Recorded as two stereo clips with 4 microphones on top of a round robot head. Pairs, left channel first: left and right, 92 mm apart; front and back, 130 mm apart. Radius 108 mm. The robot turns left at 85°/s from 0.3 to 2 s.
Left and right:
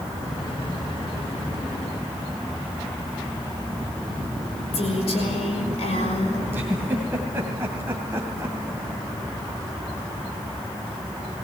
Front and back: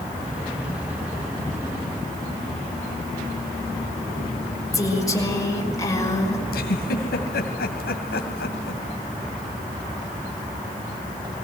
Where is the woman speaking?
65° left, 6 m.